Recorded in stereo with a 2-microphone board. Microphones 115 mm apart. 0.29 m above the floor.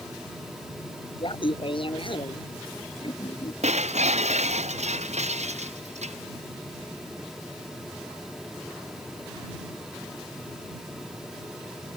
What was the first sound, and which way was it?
Laughter, 50° left (ahead or behind).